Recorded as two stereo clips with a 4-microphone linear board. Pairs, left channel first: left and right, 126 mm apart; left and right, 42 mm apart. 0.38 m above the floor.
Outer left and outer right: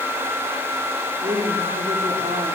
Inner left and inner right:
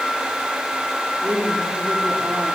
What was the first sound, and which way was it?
A woman speaking, 65° right (ahead or behind).